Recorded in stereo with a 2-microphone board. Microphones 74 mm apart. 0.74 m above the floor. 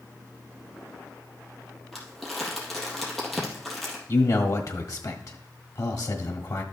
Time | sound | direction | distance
1.9 | crumpling | centre (ahead or behind) | 3 m
4.1 | a man speaking | 50° left (ahead or behind) | 1.5 m